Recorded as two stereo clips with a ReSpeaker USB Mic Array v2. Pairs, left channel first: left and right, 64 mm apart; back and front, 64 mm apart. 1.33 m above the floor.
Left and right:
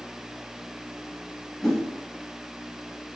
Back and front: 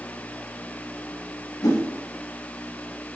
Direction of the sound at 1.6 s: 175° left.